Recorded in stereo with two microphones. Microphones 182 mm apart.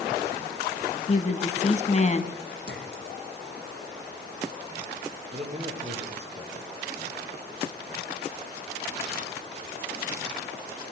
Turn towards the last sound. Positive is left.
turn(degrees=-40)  # may be behind; listen again after turning